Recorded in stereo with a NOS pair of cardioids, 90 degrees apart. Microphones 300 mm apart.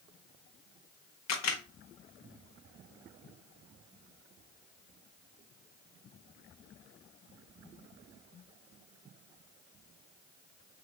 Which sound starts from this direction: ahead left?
A camera shutter, at 1.3 s.